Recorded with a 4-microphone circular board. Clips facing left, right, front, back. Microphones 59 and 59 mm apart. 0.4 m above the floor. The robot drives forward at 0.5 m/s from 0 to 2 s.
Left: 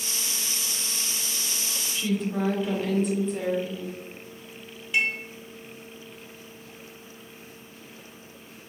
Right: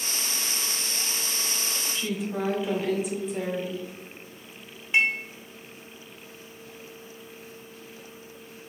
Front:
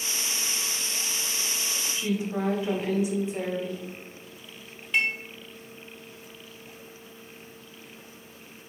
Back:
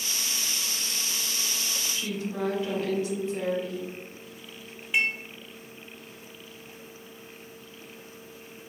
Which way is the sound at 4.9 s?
115° right.